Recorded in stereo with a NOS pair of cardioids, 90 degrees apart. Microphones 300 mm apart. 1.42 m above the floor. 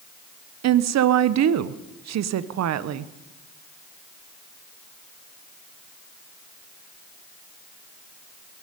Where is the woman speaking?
60° right, 0.9 m.